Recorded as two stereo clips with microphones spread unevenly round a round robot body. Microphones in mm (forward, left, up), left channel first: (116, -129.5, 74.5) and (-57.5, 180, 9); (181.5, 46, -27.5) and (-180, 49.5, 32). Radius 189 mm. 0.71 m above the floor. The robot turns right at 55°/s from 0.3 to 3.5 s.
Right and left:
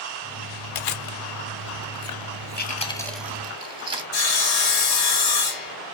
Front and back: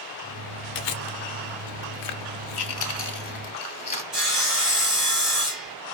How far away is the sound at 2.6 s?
About 1.3 m.